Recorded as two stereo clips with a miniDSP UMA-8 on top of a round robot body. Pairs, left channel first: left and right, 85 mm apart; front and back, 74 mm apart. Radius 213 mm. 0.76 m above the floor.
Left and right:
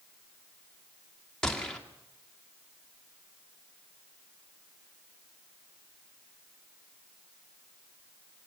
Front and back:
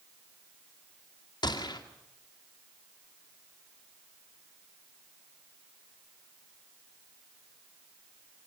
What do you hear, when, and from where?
1.4 s a gunshot: 5° left, 2 m